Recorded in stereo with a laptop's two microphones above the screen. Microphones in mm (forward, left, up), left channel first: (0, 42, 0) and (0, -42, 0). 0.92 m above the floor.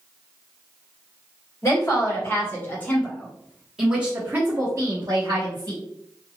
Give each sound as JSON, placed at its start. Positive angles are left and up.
{"t": 1.6, "sound": "a woman speaking", "side_deg": 40, "distance_m": 1.4}